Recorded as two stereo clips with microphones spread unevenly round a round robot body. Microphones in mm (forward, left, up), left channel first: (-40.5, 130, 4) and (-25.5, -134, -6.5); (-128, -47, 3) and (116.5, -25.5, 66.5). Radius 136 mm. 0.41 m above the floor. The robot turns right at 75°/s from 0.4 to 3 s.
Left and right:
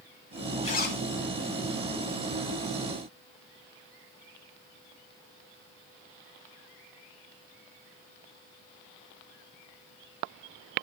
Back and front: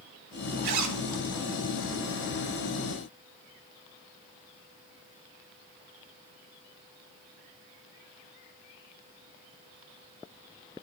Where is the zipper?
20° left, 1.0 m; by 1.0 s 50° left, 1.0 m.